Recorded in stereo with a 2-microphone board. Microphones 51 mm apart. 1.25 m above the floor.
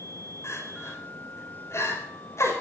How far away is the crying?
About 5 m.